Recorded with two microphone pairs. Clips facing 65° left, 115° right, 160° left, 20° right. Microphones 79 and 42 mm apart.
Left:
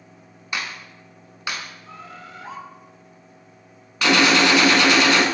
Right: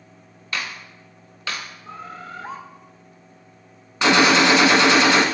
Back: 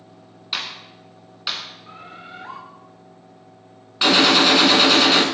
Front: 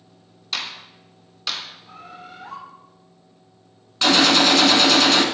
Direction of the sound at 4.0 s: 130° right.